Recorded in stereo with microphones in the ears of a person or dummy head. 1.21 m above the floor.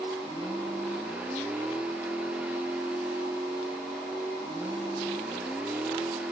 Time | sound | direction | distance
0.0 | a vehicle | 10° right (ahead or behind) | ?